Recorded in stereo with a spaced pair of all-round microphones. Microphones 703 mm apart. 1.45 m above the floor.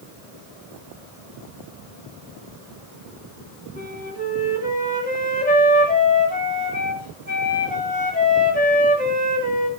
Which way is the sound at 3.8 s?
10° left (ahead or behind).